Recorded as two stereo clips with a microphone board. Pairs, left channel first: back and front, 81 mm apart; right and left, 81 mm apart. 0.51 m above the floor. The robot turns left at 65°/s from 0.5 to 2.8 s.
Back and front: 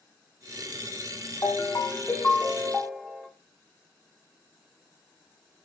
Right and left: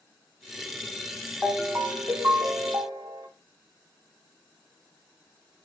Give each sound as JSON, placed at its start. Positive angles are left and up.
{"t": 1.4, "sound": "a ringtone", "azimuth_deg": 175, "distance_m": 0.6}